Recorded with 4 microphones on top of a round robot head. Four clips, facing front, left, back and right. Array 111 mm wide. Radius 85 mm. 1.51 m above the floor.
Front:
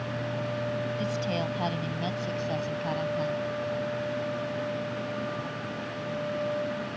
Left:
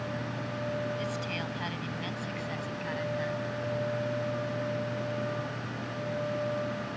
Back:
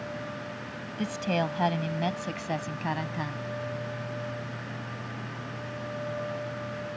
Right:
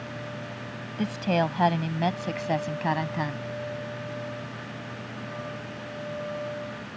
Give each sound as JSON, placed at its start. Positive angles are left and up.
{"t": 1.0, "sound": "a woman speaking", "azimuth_deg": -105}